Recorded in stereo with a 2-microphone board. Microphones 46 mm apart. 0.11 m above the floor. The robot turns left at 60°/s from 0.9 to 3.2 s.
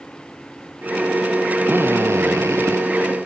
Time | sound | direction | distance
1.7 | a drill | 40° right | ?